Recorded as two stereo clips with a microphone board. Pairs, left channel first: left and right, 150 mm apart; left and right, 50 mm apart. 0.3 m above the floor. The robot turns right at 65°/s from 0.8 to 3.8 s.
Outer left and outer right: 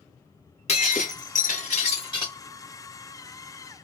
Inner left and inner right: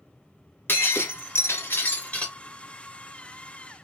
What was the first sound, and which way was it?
Breaking glass, 55° left.